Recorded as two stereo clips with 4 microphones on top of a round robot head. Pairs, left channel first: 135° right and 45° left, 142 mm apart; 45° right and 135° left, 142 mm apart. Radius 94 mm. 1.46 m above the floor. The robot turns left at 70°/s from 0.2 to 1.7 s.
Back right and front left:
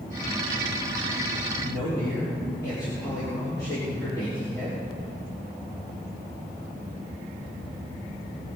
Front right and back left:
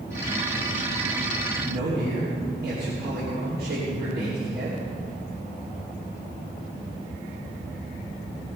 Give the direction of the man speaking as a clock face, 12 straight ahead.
6 o'clock.